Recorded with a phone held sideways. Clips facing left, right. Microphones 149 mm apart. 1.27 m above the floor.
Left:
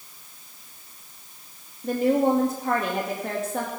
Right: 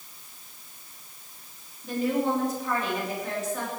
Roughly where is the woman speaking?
Left.